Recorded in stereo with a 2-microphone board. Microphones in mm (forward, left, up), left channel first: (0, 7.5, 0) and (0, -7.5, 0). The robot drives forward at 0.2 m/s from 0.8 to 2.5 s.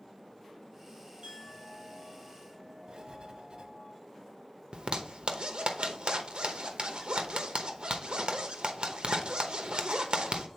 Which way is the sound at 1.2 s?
55° right (ahead or behind).